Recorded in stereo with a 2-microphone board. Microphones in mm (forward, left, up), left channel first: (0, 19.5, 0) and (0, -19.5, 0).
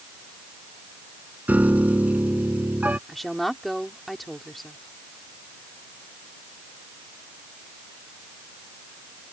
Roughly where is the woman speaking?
Centre.